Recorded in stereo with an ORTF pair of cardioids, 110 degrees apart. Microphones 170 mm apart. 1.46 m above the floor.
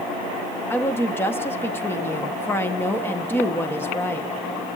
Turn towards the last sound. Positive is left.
turn(degrees=10)